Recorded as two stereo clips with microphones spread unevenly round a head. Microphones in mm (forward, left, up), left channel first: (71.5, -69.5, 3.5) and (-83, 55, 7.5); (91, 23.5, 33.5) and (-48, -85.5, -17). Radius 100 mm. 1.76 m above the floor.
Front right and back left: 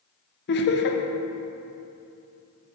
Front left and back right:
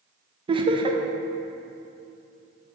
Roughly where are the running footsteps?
I don't hear running footsteps.